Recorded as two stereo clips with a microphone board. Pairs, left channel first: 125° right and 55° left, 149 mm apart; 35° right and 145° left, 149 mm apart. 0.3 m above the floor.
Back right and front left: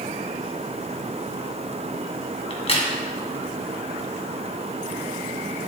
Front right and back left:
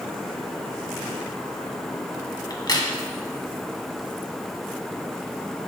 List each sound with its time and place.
2.5 s a crack: 90° right, 2 m